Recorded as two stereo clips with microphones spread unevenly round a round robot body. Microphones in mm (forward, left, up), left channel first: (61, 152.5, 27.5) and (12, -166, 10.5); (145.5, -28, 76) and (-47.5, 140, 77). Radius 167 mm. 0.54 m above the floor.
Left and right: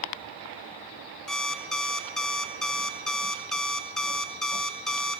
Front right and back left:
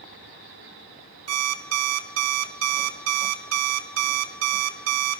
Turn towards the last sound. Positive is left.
turn(degrees=170)